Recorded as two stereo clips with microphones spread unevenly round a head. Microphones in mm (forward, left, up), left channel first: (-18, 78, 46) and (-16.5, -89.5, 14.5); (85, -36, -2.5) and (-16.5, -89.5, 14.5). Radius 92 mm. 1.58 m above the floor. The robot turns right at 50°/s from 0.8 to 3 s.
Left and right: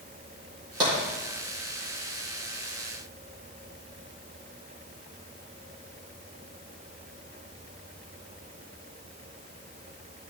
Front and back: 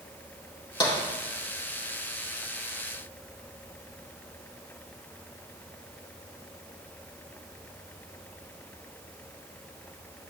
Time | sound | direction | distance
0.8 | tapping | 20° right | 3.5 m